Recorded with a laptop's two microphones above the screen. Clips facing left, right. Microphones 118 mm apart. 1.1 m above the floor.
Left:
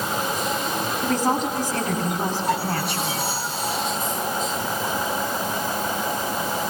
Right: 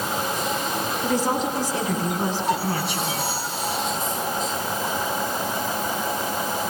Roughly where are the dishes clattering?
I don't hear dishes clattering.